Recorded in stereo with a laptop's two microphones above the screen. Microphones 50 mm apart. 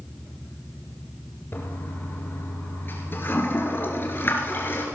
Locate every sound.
1.5 s a toilet flushing: 45° left (ahead or behind), 2.5 m